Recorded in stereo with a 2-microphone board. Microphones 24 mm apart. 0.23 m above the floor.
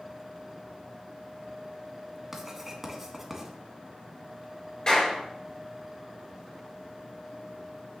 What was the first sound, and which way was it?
Writing, 15° right (ahead or behind).